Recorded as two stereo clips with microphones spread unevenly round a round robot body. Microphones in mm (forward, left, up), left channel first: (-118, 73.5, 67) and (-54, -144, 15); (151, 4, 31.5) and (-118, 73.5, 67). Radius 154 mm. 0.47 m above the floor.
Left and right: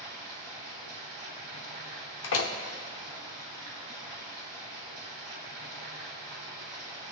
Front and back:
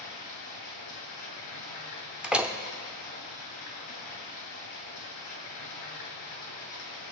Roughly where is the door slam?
Left.